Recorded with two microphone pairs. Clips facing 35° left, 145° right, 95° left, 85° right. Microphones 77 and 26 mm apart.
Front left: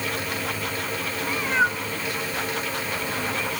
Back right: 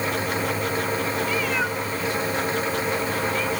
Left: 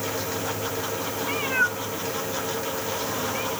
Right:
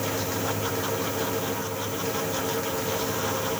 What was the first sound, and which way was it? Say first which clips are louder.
A cat meowing: front left 1 dB, left 5 dB; 95° left.